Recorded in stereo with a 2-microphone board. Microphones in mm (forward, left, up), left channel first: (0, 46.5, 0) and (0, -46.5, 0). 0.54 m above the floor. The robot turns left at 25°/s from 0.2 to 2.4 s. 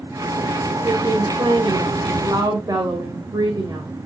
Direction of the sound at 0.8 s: 100° right.